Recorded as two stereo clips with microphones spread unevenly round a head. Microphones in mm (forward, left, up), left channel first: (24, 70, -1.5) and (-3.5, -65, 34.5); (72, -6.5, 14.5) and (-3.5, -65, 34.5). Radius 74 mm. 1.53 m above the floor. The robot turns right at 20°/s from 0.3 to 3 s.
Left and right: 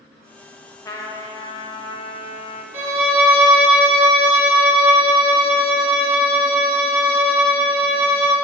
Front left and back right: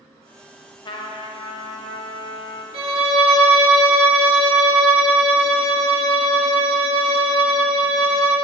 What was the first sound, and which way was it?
A trumpet, straight ahead.